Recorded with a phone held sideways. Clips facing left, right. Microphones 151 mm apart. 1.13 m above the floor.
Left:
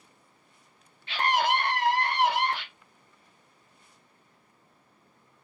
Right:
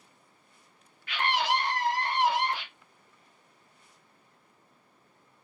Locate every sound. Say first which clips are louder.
1.1 s a scream: left 3 dB; 30° left (ahead or behind), 0.8 m; by 2.6 s 65° left (ahead or behind), 1.5 m